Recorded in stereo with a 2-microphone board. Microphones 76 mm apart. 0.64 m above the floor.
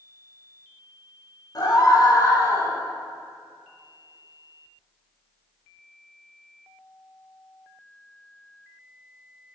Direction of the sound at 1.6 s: 55° left (ahead or behind).